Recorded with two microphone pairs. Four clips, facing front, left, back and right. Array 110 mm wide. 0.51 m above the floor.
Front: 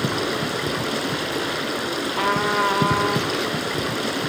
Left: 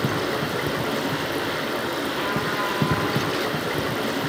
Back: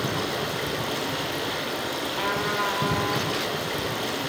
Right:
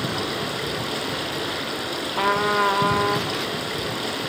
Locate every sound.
0.0 s running water: 25° left, 2 m
2.2 s a trumpet: 55° right, 0.6 m